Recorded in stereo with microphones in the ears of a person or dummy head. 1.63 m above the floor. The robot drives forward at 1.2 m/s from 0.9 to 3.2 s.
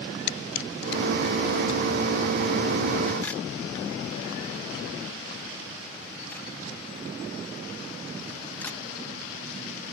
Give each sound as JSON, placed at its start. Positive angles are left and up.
{"t": 0.3, "sound": "a camera shutter", "side_deg": 60}